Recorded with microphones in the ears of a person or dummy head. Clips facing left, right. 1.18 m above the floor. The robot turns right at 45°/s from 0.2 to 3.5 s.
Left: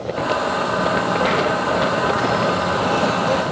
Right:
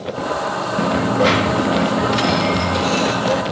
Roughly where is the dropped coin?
Behind right.